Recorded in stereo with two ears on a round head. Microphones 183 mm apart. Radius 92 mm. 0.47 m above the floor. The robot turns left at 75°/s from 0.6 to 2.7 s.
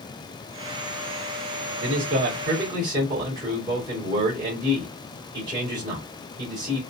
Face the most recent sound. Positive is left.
turn(degrees=-150)